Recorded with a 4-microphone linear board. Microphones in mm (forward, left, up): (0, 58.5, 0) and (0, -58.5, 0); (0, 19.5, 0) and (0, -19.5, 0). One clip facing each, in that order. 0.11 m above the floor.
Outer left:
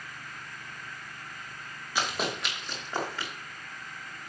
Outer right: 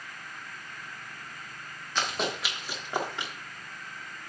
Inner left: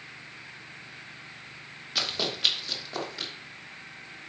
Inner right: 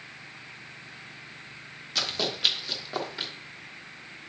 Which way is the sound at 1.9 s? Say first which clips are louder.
Even, even; 10° left (ahead or behind).